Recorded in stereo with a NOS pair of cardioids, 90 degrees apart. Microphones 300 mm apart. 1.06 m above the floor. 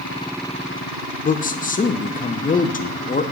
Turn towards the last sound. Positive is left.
turn(degrees=25)